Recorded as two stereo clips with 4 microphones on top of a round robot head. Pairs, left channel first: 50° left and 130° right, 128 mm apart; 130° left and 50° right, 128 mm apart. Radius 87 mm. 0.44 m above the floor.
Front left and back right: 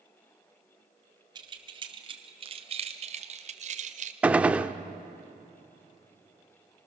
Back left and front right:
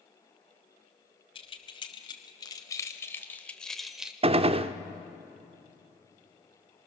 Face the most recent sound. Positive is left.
turn(degrees=-50)